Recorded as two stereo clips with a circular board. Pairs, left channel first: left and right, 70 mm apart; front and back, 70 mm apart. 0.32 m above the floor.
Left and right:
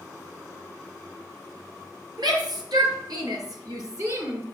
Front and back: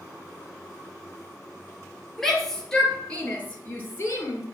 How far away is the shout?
About 5.5 m.